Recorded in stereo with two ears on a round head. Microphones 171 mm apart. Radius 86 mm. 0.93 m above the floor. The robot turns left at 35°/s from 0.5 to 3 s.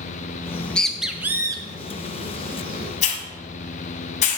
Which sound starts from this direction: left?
A hiss, at 3.0 s.